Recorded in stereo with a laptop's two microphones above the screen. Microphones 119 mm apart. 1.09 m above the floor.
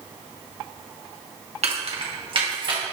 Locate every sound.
1.6 s keys jangling: 65° right (ahead or behind), 0.6 m; by 2.8 s 45° right (ahead or behind), 1.4 m